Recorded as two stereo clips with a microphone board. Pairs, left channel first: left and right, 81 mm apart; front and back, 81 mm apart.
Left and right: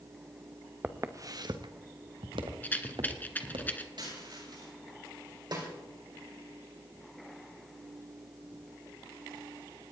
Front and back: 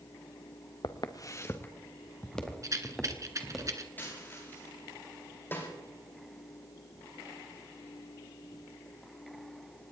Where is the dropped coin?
65° right, 10 m.